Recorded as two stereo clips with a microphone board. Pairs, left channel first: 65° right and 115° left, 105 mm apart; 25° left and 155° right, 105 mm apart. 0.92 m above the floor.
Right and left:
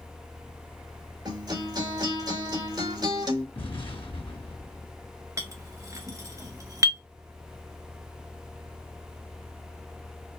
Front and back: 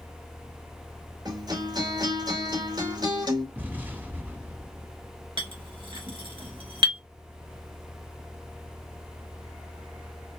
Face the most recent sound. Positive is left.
turn(degrees=170)